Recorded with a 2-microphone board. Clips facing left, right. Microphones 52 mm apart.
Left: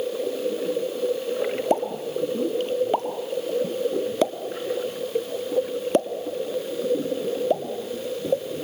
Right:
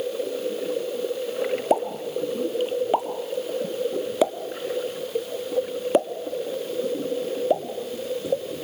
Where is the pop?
10° right (ahead or behind), 1.6 m.